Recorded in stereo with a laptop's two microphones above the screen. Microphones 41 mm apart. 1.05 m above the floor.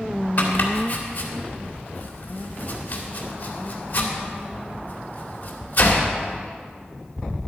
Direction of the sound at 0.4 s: 40° left (ahead or behind).